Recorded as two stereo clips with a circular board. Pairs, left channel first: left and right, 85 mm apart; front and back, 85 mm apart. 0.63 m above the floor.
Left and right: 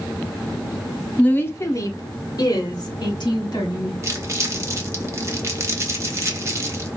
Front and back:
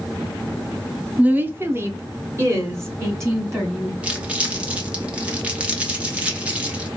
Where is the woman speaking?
140° left, 0.5 m; by 3.9 s 125° left, 2 m.